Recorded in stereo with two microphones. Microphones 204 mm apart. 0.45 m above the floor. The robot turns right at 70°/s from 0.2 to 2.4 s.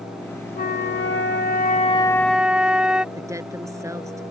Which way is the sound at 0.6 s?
55° left.